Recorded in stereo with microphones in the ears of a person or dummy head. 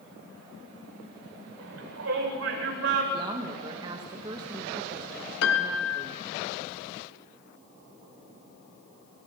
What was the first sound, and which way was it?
A shout, 85° right.